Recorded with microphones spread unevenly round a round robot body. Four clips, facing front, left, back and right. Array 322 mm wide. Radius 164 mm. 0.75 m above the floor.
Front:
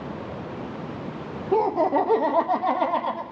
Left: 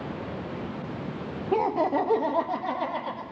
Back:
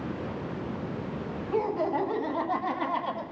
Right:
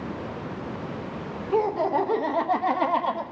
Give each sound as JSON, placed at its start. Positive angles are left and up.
{"t": 1.5, "sound": "laughter", "azimuth_deg": 60, "distance_m": 1.3}